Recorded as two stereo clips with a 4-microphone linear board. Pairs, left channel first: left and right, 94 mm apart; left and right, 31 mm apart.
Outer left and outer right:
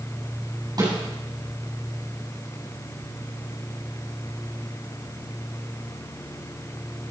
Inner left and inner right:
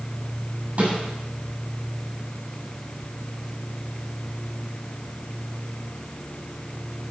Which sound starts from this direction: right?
A snare drum, at 0.8 s.